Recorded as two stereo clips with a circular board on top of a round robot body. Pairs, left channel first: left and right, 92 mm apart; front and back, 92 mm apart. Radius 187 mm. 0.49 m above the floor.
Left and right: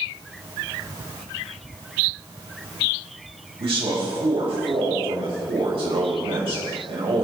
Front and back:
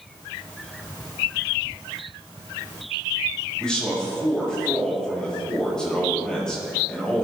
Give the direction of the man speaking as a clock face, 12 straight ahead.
3 o'clock.